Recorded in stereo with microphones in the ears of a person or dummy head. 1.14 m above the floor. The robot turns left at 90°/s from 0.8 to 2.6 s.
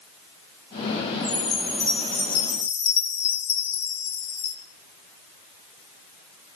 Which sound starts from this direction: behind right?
A chime, at 1.2 s.